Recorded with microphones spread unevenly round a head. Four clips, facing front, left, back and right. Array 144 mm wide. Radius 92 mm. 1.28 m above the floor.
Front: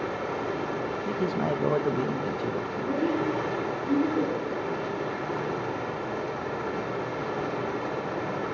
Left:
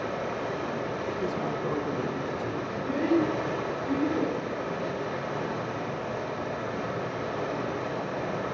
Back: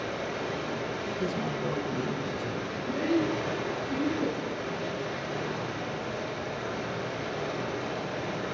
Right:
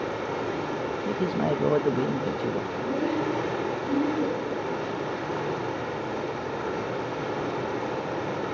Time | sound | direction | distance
0.0 | running water | 45° right | 4.5 m
1.1 | a man speaking | 70° right | 1.2 m
2.7 | a child speaking | straight ahead | 8 m